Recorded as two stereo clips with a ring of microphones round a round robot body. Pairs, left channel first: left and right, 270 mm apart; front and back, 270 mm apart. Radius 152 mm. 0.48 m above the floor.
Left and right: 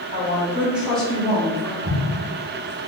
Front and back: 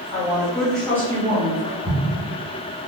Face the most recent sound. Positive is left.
turn(degrees=-55)